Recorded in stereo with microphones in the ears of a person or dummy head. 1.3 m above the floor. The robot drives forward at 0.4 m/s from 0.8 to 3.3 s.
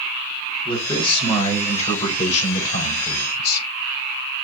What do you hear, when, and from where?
0.7 s a man speaking: 25° left (ahead or behind), 1.6 m; by 3.7 s 55° left (ahead or behind), 0.8 m